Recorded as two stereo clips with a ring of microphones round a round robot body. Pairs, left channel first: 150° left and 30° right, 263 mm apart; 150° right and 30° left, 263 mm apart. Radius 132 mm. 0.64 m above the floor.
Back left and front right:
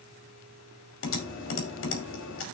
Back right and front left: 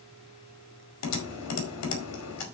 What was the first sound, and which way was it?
Typing on a keyboard, 170° right.